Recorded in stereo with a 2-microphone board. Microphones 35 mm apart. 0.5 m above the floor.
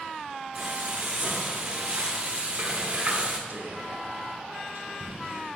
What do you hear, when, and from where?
0.6 s frying: 45° right (ahead or behind), 1.3 m
3.5 s whispering: 70° right (ahead or behind), 2 m